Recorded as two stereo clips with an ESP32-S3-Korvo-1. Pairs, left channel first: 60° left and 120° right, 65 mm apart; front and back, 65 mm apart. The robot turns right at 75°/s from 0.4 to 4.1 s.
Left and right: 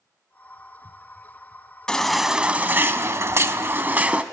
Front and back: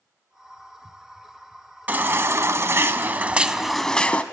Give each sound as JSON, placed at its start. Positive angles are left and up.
{"t": 1.9, "sound": "a baby crying", "azimuth_deg": 130, "distance_m": 0.7}